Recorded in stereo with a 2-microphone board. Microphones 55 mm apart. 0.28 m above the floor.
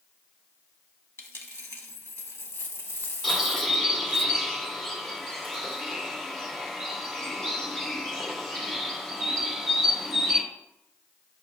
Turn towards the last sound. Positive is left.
turn(degrees=10)  # may be behind; listen again after turning